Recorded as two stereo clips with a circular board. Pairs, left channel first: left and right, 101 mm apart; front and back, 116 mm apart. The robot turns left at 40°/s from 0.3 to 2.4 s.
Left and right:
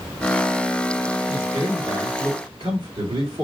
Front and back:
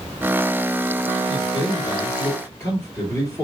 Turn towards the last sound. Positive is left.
turn(degrees=-70)